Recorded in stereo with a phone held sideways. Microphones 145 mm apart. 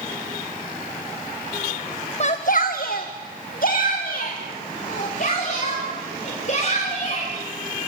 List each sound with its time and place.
2.2 s a shout: 45° left (ahead or behind), 1.2 m; by 7.3 s 50° left (ahead or behind), 7 m